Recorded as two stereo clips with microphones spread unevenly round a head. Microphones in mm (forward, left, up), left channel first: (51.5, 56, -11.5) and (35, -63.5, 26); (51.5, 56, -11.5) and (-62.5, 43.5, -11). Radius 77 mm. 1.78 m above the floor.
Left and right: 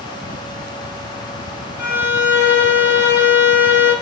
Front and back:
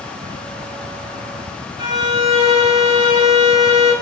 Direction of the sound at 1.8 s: 140° right.